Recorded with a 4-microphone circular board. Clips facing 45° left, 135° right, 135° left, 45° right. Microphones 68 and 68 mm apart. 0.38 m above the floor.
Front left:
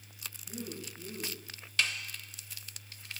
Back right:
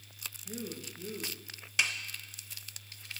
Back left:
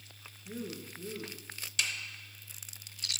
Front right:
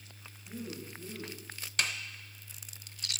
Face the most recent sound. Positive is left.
turn(degrees=-65)